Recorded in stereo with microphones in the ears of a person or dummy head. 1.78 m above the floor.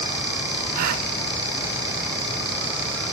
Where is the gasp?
50° right (ahead or behind), 0.7 m.